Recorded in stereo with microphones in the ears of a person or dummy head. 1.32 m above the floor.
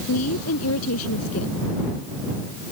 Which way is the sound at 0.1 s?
90° left.